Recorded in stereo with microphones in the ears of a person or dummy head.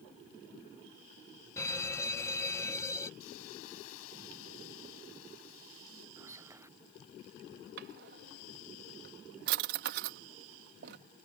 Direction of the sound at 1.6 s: 10° left (ahead or behind).